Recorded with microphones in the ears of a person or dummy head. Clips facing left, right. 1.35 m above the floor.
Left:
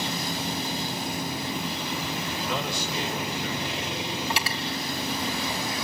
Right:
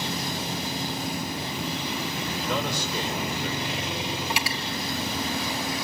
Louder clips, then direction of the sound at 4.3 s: Even; 10° right (ahead or behind).